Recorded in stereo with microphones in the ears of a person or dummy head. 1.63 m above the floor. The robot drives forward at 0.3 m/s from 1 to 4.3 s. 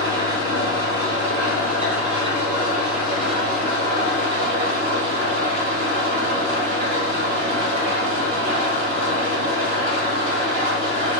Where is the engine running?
35° right (ahead or behind), 2.0 m; by 11.2 s 55° right (ahead or behind), 1.5 m.